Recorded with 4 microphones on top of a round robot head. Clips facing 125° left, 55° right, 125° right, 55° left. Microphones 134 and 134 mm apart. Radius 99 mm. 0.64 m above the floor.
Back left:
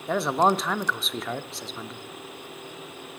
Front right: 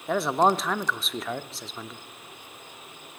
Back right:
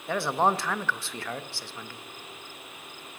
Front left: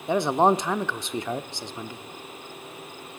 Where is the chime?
I don't hear a chime.